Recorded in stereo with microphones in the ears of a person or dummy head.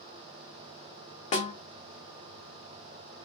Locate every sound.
1.3 s a snare drum: 30° left (ahead or behind), 0.8 m